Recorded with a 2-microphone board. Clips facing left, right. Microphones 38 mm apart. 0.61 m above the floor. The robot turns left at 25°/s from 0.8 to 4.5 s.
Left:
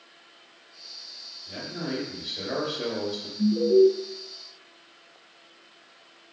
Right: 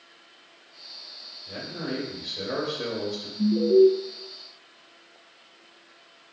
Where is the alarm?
20° right (ahead or behind), 1.2 m.